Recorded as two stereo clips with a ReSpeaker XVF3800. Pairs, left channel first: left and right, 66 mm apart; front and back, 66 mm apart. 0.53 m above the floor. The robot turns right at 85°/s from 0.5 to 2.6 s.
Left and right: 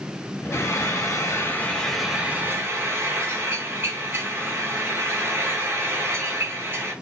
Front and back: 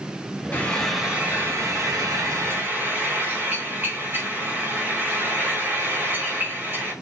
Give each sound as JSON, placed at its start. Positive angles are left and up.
{"t": 0.5, "sound": "frying", "azimuth_deg": 55, "distance_m": 1.5}